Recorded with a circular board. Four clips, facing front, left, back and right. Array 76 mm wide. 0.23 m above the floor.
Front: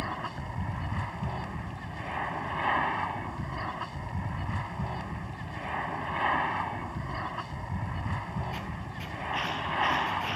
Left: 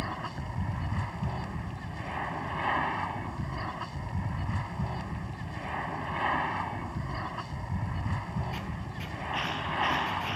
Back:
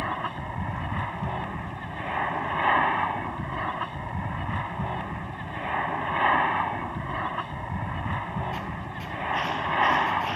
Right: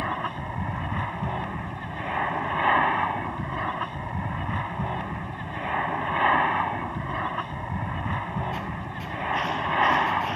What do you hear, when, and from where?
0.0 s an aircraft: 125° right